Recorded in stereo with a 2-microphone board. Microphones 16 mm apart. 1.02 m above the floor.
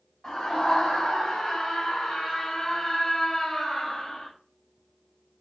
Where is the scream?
75° left (ahead or behind), 6 m; by 4.3 s 50° left (ahead or behind), 4.5 m.